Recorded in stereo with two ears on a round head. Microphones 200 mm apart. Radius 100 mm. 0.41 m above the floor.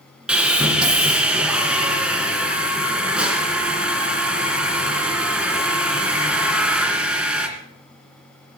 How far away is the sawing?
About 2.5 m.